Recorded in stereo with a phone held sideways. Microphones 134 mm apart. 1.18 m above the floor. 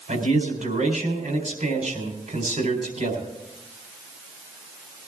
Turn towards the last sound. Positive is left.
turn(degrees=-70)  # may be behind; listen again after turning